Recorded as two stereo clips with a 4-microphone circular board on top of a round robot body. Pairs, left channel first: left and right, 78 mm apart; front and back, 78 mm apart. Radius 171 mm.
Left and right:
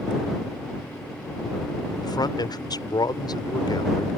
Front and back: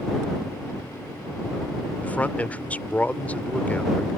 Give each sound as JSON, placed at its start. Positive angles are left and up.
{"t": 2.0, "sound": "a man speaking", "azimuth_deg": 70}